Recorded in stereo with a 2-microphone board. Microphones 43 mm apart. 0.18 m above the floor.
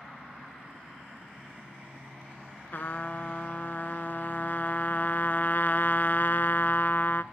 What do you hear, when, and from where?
2.7 s a trumpet: 50° left (ahead or behind), 0.5 m